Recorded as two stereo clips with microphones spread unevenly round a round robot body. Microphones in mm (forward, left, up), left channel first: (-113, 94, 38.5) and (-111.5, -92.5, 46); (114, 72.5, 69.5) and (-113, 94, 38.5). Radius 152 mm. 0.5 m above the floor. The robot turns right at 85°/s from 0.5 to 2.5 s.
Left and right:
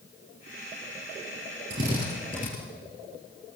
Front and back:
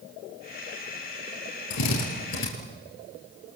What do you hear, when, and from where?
1.7 s a drill: 35° right, 7 m; by 2.5 s 30° left, 7 m